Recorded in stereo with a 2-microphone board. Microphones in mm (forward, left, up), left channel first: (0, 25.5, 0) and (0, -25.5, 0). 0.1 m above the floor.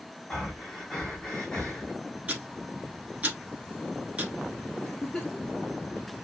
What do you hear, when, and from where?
0.3 s breathing: 10° left (ahead or behind), 1.1 m
2.3 s ticking: 30° right (ahead or behind), 1.4 m
4.8 s a giggle: 10° left (ahead or behind), 2 m